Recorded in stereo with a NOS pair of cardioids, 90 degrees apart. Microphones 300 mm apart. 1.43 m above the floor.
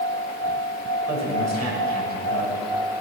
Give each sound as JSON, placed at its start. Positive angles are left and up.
{"t": 1.1, "sound": "a man speaking", "azimuth_deg": -60, "distance_m": 6.5}